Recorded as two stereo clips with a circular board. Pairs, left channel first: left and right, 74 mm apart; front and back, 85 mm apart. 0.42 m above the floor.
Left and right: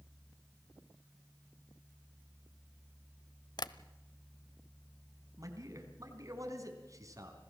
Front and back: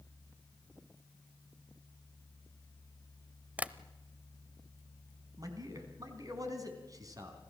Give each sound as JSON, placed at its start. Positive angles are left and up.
{"t": 3.6, "sound": "tapping", "azimuth_deg": 105, "distance_m": 0.7}
{"t": 5.4, "sound": "a man speaking", "azimuth_deg": -135, "distance_m": 3.5}